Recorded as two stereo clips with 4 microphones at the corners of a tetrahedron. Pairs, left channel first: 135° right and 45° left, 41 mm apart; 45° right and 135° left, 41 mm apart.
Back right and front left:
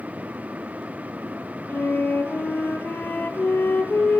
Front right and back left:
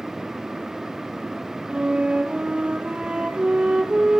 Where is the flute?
160° right, 1.1 m.